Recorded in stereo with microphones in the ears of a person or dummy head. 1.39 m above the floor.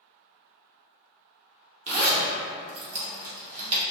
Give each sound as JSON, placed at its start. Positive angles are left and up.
{"t": 1.9, "sound": "a zipper", "side_deg": -35, "distance_m": 1.0}